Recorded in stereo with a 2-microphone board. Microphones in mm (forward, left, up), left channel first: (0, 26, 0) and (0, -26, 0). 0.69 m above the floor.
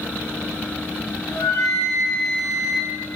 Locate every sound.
1.3 s a flute: 90° left, 3.5 m